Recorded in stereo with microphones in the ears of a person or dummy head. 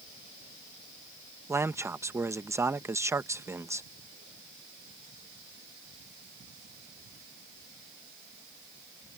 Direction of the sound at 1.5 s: 15° right (ahead or behind).